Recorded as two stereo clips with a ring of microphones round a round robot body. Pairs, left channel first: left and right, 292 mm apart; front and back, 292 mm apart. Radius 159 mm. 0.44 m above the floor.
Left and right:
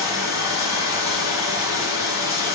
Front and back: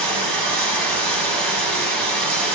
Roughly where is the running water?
Behind.